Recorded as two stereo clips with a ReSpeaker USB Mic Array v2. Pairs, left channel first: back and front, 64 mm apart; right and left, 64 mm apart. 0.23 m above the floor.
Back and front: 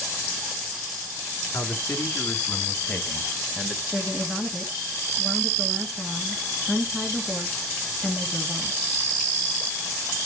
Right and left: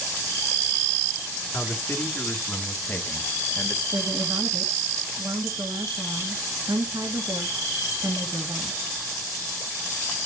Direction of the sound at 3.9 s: 85° left.